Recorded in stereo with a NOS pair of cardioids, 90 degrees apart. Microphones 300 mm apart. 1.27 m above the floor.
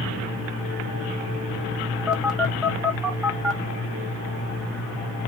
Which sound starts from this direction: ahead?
A phone buzzing, at 2.1 s.